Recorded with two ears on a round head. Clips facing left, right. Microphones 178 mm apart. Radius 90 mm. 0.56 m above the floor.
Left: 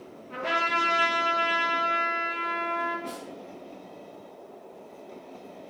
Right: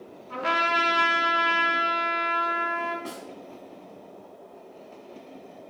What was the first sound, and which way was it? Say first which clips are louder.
A trumpet: right 2 dB; 70° right (ahead or behind).